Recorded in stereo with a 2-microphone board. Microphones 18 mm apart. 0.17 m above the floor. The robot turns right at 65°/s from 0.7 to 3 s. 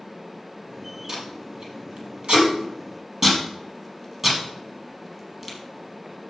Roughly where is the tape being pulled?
Right.